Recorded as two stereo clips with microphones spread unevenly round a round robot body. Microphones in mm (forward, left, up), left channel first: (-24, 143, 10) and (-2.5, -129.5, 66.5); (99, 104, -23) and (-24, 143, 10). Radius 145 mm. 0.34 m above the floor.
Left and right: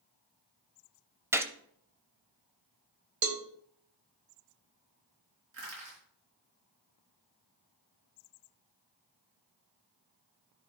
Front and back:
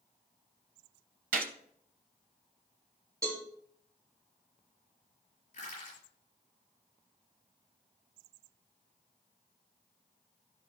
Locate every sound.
1.3 s a gunshot: 170° right, 0.5 m
3.2 s a cowbell: 115° right, 0.9 m
5.5 s crushing: 45° right, 4.5 m